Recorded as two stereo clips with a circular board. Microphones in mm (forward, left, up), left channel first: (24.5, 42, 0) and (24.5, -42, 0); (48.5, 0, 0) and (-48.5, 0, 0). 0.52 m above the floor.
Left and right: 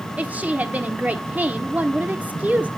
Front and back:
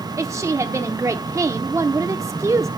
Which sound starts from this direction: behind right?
A woman speaking, at 0.2 s.